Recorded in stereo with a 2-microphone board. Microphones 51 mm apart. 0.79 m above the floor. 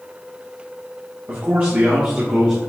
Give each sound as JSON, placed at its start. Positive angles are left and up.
{"t": 1.3, "sound": "a man speaking", "side_deg": -45, "distance_m": 1.4}